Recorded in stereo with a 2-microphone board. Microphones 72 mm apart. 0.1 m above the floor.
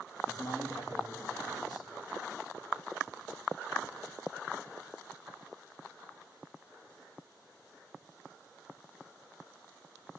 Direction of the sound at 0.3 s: 60° left (ahead or behind).